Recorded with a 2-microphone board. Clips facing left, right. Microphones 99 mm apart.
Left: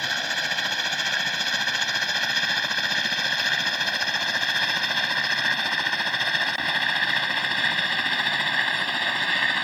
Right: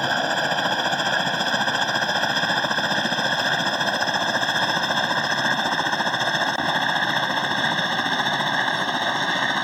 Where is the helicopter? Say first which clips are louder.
Right 7 dB; 40° right (ahead or behind); by 9.6 s 25° right (ahead or behind).